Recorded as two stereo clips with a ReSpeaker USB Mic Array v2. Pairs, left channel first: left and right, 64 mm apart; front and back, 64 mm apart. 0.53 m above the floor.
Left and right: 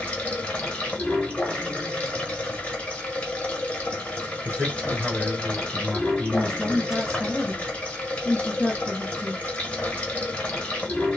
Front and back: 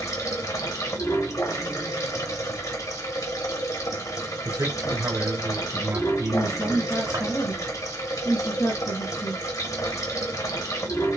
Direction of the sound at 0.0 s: 20° left.